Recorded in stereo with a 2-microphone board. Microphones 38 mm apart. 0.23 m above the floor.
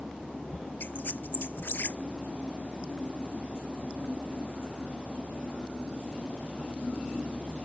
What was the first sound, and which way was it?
A squeak, 65° left (ahead or behind).